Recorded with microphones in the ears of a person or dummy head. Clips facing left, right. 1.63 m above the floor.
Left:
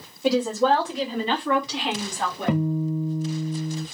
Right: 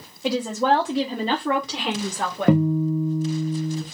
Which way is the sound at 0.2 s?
5° left (ahead or behind).